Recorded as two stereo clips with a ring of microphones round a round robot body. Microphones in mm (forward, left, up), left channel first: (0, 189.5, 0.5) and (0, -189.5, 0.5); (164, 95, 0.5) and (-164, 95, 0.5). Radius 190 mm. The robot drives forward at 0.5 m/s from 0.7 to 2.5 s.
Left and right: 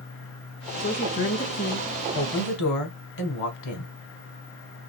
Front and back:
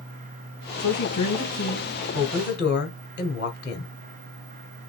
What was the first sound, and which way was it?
A woman speaking, 30° left.